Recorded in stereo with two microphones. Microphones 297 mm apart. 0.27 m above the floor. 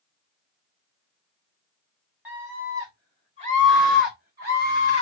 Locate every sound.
2.2 s a scream: 5° right (ahead or behind), 1.7 m; by 5.0 s 35° right (ahead or behind), 2 m